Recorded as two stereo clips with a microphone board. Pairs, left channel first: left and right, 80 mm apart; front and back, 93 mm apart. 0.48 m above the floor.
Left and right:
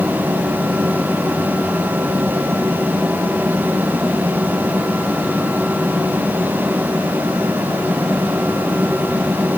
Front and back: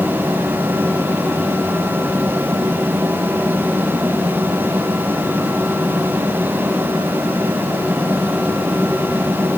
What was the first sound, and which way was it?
Only background noise.